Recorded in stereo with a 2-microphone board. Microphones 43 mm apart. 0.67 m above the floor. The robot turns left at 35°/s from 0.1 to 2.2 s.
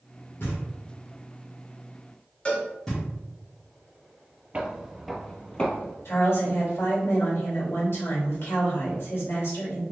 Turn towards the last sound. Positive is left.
turn(degrees=70)  # may be behind; listen again after turning